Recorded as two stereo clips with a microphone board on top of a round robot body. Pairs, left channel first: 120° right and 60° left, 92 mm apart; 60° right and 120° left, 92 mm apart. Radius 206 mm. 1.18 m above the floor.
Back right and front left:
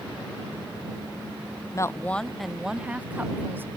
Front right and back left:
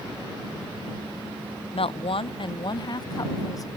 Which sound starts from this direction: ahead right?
A woman speaking, at 1.7 s.